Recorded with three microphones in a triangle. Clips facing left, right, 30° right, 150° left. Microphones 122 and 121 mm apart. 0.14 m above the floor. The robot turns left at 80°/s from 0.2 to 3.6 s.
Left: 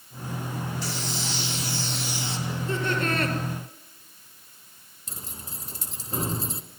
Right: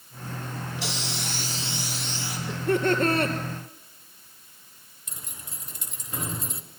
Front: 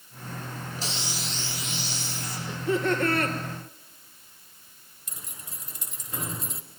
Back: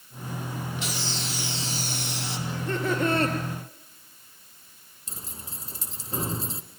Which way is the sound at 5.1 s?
120° left.